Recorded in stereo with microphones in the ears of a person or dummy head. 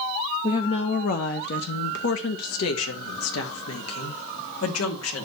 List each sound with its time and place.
0.4 s a woman speaking: 20° left (ahead or behind), 0.8 m; by 5.2 s 85° left, 3 m